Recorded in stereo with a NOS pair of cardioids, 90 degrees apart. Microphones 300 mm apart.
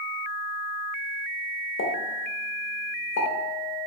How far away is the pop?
About 0.7 m.